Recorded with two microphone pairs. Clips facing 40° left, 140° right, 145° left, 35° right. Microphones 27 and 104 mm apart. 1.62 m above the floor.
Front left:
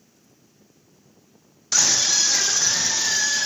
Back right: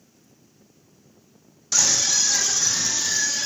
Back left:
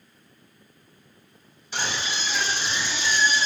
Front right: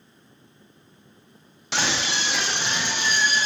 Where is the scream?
25° right, 1.6 m; by 3.5 s straight ahead, 2.5 m.